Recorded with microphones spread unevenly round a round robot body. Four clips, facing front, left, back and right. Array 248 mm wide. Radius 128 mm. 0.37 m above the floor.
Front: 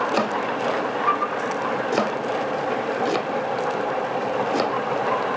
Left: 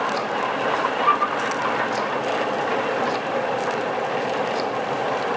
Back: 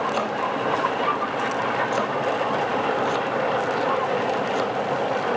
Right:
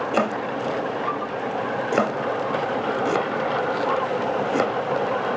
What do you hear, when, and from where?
0.1 s chopping: 65° right, 1.2 m